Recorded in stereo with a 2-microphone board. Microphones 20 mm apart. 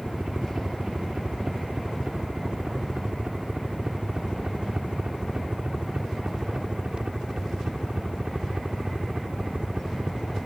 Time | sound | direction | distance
0.0 | a helicopter | 60° right (ahead or behind) | ?